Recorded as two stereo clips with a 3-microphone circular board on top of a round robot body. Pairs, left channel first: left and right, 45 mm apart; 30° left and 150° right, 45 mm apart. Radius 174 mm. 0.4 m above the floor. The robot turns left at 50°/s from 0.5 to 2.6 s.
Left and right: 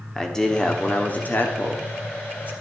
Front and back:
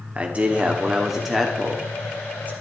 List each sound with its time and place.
0.1 s a man speaking: 165° left, 1.8 m; by 2.5 s 60° left, 1.8 m